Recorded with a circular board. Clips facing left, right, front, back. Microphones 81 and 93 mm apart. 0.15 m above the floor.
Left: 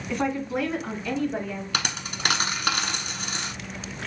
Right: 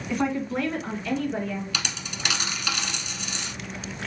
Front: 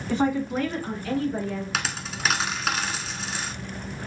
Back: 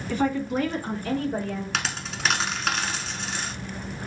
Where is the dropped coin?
85° left, 0.7 m.